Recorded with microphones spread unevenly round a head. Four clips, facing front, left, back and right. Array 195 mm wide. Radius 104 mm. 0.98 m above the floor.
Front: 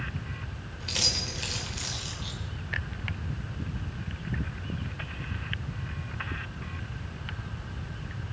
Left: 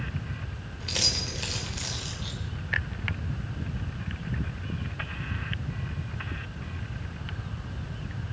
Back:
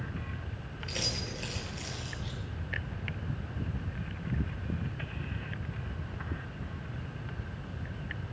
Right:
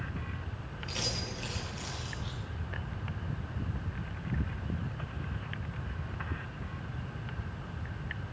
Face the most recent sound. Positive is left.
turn(degrees=120)